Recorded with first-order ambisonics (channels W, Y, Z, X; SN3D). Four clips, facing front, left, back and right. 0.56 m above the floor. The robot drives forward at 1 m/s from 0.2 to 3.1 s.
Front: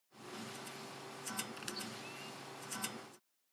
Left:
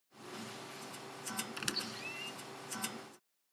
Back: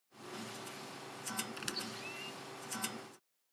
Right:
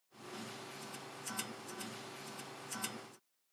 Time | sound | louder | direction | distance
1.6 | a squeak | left 7 dB, back 3 dB | 105° left | ?